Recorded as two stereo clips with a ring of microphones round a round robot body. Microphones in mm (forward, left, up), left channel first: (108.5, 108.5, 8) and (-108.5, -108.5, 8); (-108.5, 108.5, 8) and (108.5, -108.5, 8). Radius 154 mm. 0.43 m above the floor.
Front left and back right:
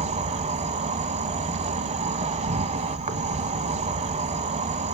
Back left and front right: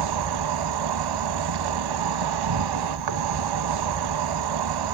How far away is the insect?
About 0.9 m.